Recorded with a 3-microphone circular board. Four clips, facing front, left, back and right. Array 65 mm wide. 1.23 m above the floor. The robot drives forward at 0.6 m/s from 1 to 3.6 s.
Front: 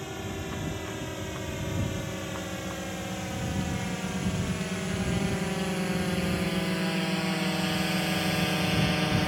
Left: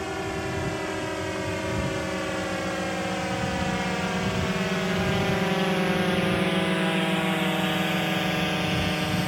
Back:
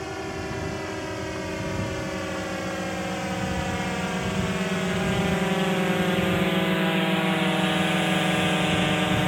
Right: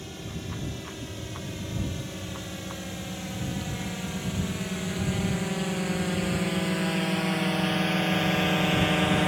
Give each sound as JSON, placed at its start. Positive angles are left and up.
{"t": 0.0, "sound": "a drone", "azimuth_deg": 115}